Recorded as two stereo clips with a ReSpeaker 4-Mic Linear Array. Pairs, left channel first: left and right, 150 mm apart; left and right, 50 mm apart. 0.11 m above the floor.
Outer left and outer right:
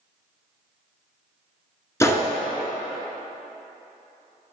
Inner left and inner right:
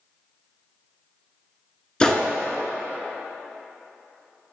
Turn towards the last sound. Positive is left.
turn(degrees=20)  # may be behind; listen again after turning